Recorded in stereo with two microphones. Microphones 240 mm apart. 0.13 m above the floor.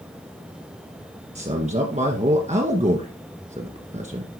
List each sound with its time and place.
1.4 s a man speaking: 30° right (ahead or behind), 1.5 m